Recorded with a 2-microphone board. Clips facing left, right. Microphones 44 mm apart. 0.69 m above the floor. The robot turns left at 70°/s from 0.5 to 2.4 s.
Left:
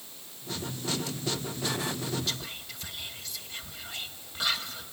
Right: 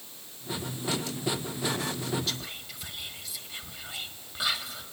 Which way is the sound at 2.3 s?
5° right (ahead or behind).